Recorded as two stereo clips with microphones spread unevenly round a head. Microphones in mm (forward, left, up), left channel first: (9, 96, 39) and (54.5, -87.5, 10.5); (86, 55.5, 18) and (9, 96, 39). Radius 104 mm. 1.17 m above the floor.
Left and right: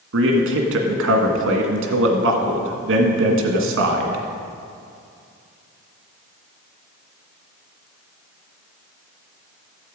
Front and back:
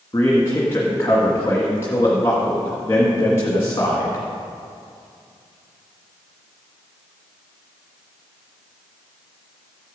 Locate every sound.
0.1 s a man speaking: 100° right, 1.5 m